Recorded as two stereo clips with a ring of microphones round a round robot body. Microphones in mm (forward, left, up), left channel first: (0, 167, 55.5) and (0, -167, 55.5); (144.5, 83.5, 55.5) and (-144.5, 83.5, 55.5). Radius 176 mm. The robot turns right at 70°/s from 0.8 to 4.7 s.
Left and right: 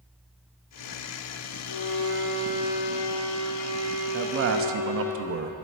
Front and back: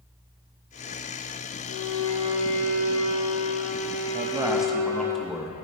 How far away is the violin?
About 1.9 m.